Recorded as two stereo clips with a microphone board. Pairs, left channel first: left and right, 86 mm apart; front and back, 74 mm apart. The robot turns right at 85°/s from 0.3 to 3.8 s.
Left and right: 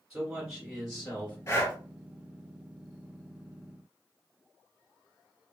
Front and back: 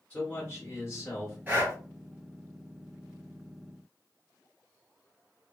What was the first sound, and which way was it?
A man speaking, 25° right.